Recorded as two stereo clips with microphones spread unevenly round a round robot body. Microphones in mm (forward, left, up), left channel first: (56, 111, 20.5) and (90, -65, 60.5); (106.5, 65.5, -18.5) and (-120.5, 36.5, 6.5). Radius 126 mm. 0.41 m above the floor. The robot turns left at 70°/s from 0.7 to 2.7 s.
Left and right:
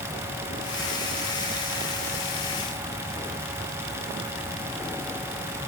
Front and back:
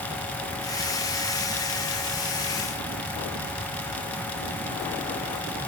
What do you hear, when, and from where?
Only background noise.